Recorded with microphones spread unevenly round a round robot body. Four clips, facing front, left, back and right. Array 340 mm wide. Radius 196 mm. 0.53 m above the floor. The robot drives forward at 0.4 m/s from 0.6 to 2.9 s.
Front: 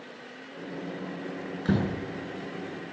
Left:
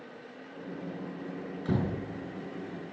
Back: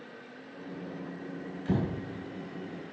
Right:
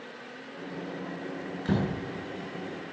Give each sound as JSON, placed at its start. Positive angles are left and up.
{"t": 1.6, "sound": "a door slam", "azimuth_deg": -15, "distance_m": 7.5}